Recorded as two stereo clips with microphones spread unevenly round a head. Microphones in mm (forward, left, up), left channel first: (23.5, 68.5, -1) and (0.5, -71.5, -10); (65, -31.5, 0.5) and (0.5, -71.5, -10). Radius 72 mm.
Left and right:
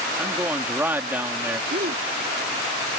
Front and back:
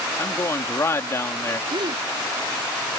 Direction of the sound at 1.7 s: 130° right.